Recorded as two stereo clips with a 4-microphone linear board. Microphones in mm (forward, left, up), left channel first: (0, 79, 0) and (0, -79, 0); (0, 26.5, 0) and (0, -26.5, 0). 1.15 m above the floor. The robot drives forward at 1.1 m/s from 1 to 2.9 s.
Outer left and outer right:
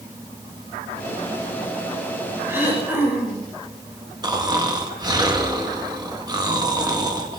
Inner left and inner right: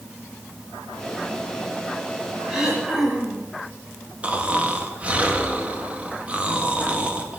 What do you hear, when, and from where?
2.5 s throat clearing: 15° right (ahead or behind), 6 m
4.2 s snoring: 25° right (ahead or behind), 2.0 m